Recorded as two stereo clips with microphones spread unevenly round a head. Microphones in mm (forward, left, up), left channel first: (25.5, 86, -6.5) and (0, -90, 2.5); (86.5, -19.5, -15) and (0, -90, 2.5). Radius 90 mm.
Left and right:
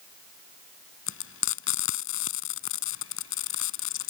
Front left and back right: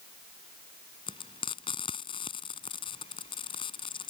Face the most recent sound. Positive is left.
turn(degrees=105)